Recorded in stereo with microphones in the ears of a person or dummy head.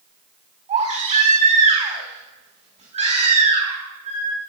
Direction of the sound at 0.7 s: 35° right (ahead or behind).